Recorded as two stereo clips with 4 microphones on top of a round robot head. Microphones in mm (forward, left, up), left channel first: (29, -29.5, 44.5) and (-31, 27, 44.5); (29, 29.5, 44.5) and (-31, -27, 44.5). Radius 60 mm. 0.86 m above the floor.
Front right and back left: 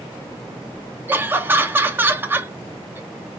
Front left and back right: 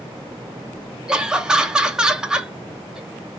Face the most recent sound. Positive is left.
turn(degrees=155)